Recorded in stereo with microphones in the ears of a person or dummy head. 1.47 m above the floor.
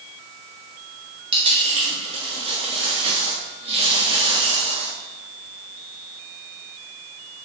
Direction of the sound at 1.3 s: 30° right (ahead or behind).